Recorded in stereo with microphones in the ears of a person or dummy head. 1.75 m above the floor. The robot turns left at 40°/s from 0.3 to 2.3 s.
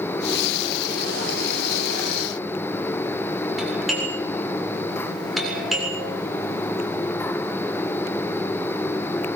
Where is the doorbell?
Centre (ahead or behind), 7.5 m.